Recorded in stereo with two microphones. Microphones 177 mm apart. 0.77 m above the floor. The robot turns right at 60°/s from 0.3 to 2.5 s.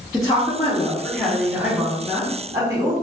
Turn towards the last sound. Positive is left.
turn(degrees=-20)  # may be behind; listen again after turning